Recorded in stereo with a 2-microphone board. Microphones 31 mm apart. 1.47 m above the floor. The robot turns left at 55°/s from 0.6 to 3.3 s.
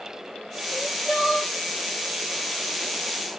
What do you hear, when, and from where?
0.7 s crying: 120° left, 2 m; by 1.5 s 75° left, 2 m